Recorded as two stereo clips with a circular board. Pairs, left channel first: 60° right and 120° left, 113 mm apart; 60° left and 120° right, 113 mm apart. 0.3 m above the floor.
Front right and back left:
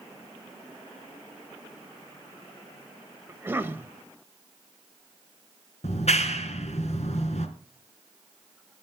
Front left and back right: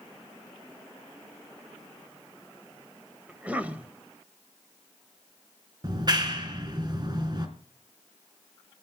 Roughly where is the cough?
Behind.